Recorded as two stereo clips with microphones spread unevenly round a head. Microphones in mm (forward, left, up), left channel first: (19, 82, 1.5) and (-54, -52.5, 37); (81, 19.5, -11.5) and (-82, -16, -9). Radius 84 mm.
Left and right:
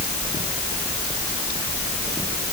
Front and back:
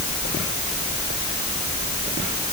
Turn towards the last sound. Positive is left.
No sound to turn to.